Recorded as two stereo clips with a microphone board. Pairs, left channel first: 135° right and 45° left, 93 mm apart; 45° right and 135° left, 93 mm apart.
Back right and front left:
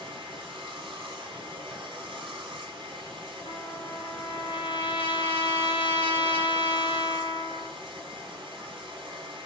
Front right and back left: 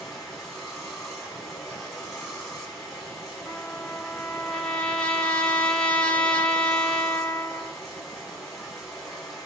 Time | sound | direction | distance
0.0 | running water | 40° left | 1.1 m
3.5 | a trumpet | 125° right | 0.6 m